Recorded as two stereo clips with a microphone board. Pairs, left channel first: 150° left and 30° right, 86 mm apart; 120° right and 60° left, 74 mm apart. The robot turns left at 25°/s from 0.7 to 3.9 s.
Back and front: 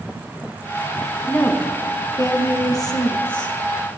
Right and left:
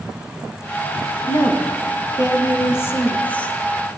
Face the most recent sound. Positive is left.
turn(degrees=160)